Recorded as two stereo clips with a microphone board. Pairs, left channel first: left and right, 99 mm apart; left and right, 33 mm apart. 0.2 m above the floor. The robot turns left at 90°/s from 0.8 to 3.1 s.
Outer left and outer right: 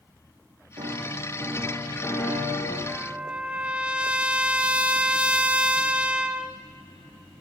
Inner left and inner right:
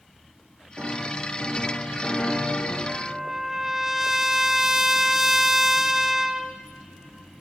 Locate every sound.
0.8 s a piano: 85° right, 7 m; by 2.8 s 95° left, 7 m
2.9 s a trumpet: 5° left (ahead or behind), 0.9 m; by 6.6 s 10° right (ahead or behind), 0.9 m